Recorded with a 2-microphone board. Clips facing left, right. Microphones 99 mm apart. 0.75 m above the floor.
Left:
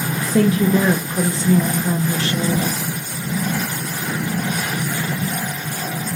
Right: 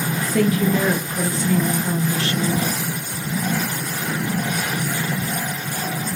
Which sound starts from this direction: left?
A woman speaking, at 0.3 s.